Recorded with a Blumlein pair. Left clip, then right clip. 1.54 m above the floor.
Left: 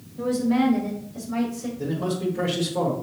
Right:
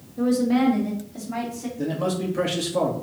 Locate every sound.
0.2 s a woman speaking: 60° right, 2.5 m; by 1.7 s 70° right, 3.5 m
1.8 s a man speaking: 55° right, 2.5 m